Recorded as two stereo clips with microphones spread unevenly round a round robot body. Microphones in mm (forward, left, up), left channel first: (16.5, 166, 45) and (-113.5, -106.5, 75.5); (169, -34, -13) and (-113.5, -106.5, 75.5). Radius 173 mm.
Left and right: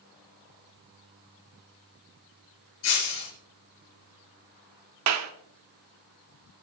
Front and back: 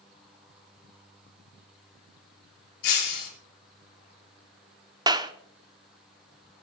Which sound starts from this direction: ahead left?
Breaking glass, at 2.8 s.